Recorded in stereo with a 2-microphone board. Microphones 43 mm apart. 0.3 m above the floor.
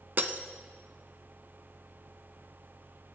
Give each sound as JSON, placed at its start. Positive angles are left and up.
{"t": 0.2, "sound": "breaking glass", "side_deg": -50, "distance_m": 0.5}